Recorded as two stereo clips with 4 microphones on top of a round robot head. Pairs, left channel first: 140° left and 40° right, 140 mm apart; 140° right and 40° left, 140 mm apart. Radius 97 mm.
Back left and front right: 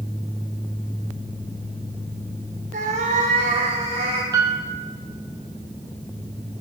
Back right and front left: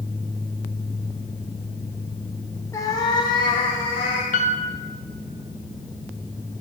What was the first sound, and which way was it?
A cat meowing, 70° right.